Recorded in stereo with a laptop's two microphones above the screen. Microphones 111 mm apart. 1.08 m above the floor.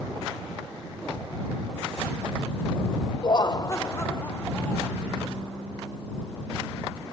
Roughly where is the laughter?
Left.